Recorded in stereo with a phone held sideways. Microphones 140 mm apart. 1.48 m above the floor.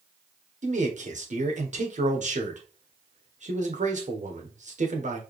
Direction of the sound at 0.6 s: 60° right (ahead or behind).